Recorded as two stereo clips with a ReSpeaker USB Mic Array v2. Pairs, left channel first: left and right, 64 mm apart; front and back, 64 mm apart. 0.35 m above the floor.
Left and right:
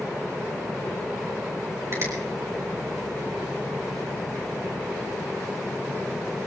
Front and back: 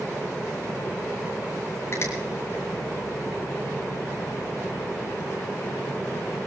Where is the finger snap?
45° right, 6 m.